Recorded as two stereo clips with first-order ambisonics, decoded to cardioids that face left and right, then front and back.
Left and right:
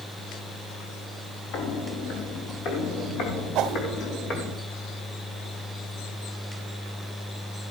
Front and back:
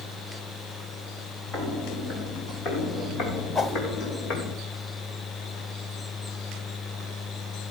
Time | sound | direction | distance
1.5 | footsteps | 65° left | 3 m
3.5 | a whoosh | 70° right | 1.1 m